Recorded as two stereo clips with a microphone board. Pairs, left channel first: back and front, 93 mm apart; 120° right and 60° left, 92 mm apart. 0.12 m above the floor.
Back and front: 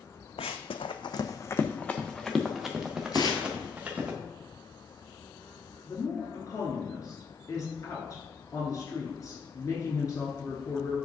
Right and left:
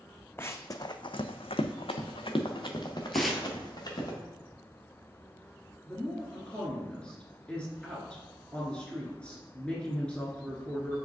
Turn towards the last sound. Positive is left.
turn(degrees=170)